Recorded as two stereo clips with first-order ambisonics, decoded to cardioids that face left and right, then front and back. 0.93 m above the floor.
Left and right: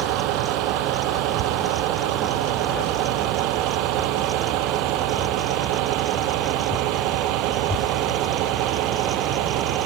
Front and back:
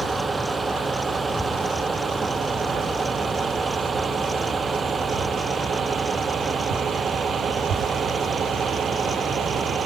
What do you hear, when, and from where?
0.0 s a vehicle: 100° right; by 9.9 s 115° right